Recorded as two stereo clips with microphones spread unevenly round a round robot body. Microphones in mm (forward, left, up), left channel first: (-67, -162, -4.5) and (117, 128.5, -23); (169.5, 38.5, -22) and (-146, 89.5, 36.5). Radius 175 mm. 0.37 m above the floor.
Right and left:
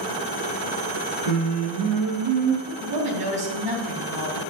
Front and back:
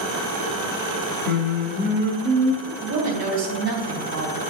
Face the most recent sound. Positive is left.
turn(degrees=125)